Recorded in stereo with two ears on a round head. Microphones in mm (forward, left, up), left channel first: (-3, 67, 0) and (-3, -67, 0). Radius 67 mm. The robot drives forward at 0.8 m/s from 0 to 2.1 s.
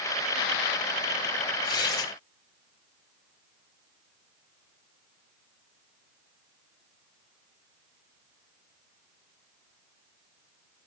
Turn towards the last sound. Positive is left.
turn(degrees=25)  # may be behind; listen again after turning